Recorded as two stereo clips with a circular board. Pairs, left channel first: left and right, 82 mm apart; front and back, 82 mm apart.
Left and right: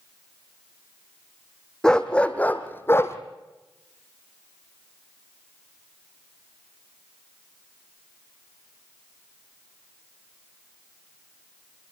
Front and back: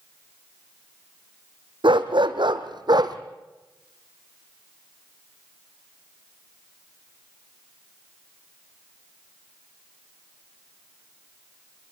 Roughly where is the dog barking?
Behind.